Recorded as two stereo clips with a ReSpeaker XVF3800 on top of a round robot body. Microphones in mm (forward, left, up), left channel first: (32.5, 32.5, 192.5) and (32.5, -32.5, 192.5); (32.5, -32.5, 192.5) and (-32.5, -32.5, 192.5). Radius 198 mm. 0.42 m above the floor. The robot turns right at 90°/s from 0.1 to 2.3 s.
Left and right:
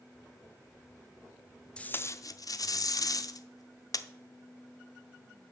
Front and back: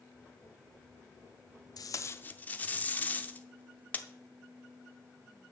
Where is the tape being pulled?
15° left, 0.7 m; by 4.1 s 65° left, 0.7 m.